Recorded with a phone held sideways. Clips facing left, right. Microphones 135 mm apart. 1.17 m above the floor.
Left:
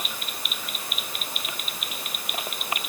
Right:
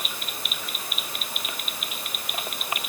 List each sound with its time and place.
Only background noise.